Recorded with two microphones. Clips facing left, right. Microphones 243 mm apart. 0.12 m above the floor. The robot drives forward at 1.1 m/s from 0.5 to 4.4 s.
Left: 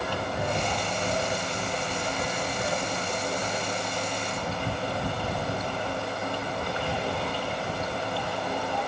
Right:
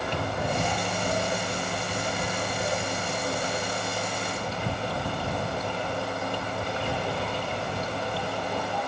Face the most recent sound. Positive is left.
turn(degrees=-10)  # may be behind; listen again after turning